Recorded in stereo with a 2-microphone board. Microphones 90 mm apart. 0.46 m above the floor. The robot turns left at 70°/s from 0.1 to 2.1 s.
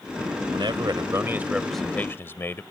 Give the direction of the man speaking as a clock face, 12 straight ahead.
3 o'clock.